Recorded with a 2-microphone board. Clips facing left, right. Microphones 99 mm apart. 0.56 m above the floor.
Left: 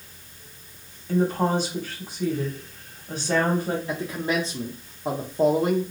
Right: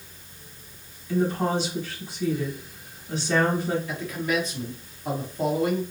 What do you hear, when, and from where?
1.1 s a woman speaking: 45° left (ahead or behind), 1.6 m
3.9 s a man speaking: 30° left (ahead or behind), 0.7 m